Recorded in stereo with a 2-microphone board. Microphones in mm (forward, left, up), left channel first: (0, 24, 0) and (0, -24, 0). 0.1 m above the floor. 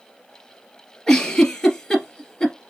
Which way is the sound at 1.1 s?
15° left (ahead or behind).